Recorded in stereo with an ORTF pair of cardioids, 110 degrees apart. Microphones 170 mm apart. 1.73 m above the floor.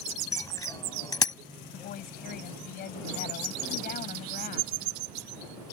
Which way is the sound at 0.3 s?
20° left.